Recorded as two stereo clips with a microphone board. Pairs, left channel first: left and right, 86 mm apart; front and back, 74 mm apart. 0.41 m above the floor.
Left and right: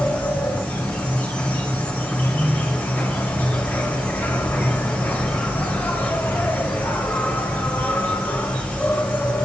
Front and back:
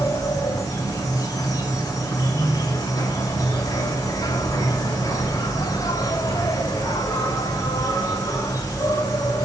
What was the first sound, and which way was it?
An insect, 20° left.